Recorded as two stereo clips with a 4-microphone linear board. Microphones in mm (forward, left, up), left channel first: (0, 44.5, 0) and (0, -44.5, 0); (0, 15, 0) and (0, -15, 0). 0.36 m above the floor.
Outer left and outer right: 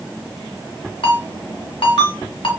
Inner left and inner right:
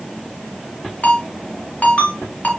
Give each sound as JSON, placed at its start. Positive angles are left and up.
{"t": 1.0, "sound": "a ringtone", "side_deg": 75, "distance_m": 1.7}